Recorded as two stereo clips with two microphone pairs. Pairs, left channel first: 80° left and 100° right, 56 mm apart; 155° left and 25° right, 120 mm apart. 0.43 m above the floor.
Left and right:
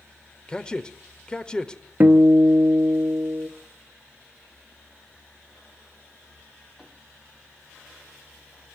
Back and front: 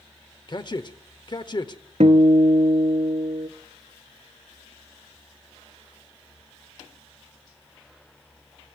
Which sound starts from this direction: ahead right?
A guitar, at 2.0 s.